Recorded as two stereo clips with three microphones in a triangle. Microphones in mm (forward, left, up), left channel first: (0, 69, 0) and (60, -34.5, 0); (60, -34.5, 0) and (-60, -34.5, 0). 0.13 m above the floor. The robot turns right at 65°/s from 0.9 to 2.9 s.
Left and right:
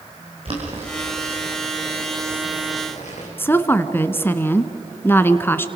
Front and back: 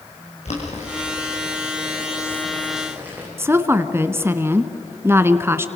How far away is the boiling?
About 6.5 m.